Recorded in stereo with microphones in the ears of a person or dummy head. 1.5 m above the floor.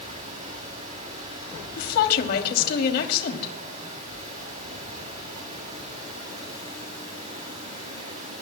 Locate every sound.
0.0 s running water: 35° right (ahead or behind), 6.5 m
1.8 s a woman speaking: 60° left (ahead or behind), 3 m